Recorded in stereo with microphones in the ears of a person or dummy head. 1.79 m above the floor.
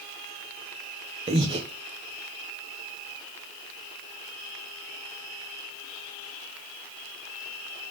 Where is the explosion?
No explosion in this recording.